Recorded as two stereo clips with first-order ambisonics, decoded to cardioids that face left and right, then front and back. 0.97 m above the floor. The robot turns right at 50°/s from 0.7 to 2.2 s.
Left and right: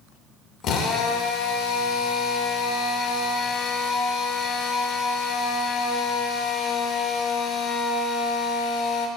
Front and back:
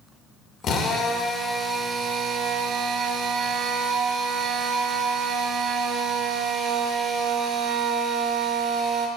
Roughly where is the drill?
Ahead left.